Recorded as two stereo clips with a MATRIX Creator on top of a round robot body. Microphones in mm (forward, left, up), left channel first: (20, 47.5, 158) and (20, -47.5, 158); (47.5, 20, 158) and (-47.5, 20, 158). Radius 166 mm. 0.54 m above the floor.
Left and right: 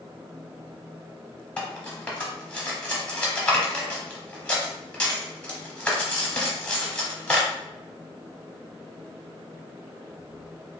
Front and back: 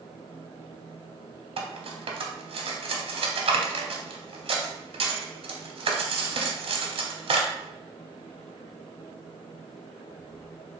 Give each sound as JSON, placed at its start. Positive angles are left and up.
{"t": 1.6, "sound": "cutlery clinking", "azimuth_deg": 170, "distance_m": 0.7}